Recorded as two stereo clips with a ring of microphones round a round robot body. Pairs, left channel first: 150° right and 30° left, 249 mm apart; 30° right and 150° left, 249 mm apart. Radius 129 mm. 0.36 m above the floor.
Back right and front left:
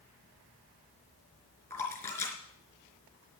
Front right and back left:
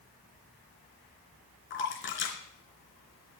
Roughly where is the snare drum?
I don't hear a snare drum.